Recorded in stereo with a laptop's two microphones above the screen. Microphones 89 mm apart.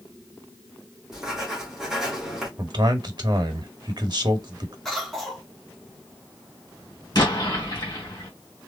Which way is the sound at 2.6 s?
55° right (ahead or behind).